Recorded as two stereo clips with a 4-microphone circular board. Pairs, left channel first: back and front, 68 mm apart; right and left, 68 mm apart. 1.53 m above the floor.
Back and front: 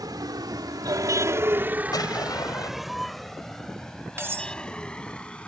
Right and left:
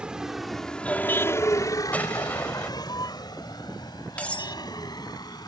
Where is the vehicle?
15° left; by 5.5 s 105° right.